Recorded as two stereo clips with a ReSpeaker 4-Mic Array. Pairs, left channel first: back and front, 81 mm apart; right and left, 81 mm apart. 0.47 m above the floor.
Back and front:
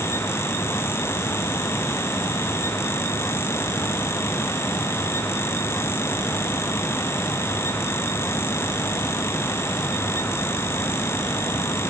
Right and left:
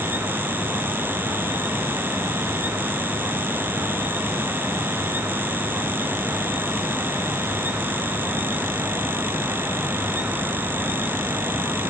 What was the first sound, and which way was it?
Only background noise.